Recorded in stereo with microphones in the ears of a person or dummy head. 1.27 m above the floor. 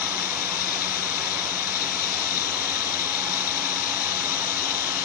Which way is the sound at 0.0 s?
50° left (ahead or behind).